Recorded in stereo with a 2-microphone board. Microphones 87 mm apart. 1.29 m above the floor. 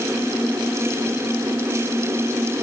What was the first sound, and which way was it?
Only background noise.